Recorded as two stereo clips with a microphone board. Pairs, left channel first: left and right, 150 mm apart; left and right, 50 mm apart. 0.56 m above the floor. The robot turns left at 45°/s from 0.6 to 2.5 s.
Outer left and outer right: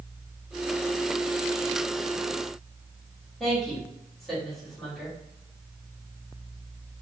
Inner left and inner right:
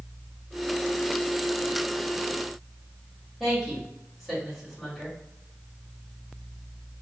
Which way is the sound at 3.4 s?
Centre (ahead or behind).